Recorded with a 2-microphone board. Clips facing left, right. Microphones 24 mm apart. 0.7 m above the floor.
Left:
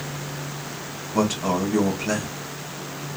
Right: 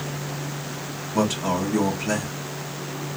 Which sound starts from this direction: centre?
A man speaking, at 1.1 s.